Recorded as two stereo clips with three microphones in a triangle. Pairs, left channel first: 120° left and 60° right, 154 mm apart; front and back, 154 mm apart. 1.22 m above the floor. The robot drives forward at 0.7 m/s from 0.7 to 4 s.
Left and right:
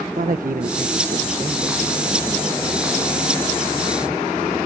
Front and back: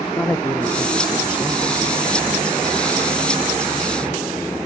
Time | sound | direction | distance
0.1 | a man speaking | 75° right | ?